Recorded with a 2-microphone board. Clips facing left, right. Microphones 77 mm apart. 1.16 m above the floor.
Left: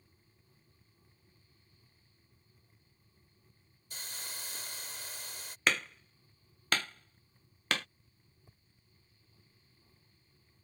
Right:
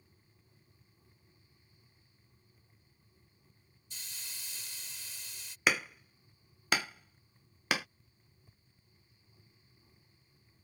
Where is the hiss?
55° left (ahead or behind).